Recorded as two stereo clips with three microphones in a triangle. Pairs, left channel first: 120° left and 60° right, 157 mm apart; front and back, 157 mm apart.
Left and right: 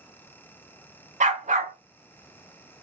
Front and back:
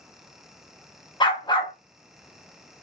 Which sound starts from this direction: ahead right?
A dog barking, at 1.2 s.